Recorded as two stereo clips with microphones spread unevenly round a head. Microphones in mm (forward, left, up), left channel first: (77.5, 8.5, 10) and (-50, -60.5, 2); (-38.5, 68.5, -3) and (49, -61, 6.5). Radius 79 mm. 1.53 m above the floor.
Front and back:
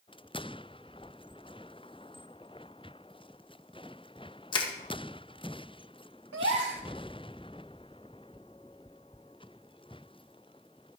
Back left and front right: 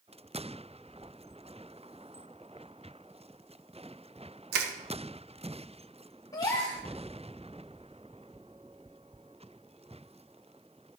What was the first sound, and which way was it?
Crushing, 30° right.